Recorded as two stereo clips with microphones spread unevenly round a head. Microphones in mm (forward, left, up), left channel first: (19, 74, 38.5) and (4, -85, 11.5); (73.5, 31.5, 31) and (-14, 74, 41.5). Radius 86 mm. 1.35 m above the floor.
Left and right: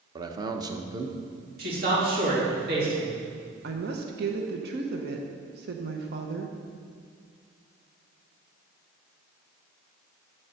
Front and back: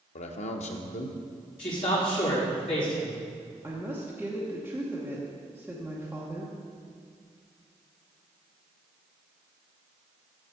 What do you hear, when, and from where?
0.1 s a man speaking: 25° right, 0.8 m
1.6 s a man speaking: 70° right, 3 m
3.6 s a woman speaking: 130° right, 0.9 m